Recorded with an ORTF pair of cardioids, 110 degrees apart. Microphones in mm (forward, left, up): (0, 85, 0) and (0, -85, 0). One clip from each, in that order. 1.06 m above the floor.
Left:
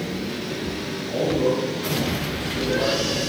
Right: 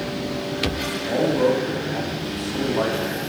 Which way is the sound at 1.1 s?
60° right.